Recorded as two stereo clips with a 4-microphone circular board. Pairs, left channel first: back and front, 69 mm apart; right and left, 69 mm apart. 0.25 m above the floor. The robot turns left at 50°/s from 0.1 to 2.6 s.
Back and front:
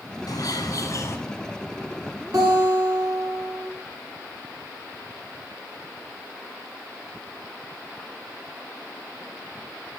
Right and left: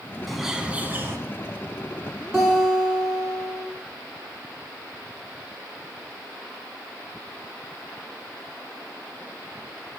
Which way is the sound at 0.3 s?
Straight behind.